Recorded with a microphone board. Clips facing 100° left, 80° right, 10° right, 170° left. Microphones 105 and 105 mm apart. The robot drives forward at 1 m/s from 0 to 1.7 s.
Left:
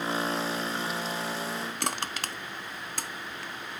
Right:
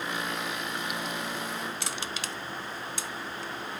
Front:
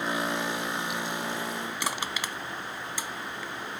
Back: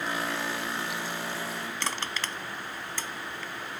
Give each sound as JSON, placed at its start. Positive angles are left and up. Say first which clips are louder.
{"t": 1.8, "sound": "crushing", "louder": "left 3 dB, even", "azimuth_deg": 65, "distance_m": 0.6}